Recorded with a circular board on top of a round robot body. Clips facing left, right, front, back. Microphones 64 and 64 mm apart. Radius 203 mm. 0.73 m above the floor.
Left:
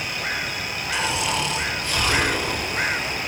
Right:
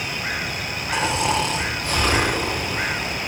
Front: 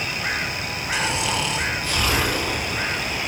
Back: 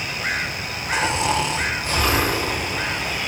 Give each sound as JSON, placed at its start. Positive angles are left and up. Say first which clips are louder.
{"t": 0.9, "sound": "snoring", "louder": "right 4 dB, back 4 dB", "azimuth_deg": -135, "distance_m": 2.5}